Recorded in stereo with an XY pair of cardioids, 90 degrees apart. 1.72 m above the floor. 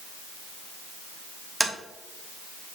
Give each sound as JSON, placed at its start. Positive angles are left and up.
{"t": 1.6, "sound": "tapping", "azimuth_deg": -5, "distance_m": 1.4}